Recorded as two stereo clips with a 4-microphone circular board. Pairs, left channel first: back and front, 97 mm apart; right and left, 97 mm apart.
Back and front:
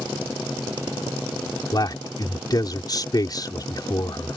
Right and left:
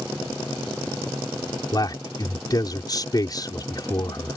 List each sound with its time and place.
1.7 s a man speaking: 135° right